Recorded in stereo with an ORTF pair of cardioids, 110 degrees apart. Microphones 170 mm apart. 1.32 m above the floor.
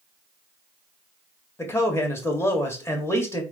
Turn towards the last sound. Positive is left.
turn(degrees=15)